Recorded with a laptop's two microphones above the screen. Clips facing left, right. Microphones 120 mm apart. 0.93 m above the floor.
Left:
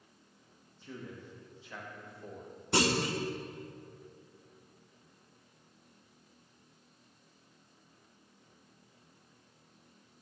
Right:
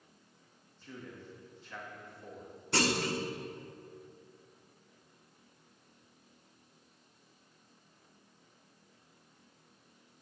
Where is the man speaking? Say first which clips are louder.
Left 2 dB; 5° left (ahead or behind), 1.3 m.